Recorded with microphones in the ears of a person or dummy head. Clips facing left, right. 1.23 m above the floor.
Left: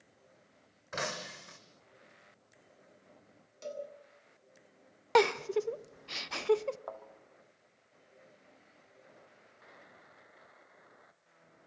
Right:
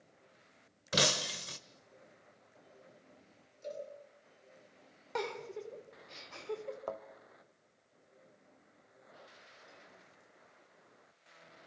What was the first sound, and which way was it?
Breaking glass, 35° right (ahead or behind).